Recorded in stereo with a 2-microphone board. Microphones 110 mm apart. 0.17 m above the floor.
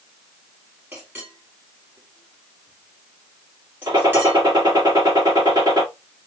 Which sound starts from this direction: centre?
A clink, at 0.9 s.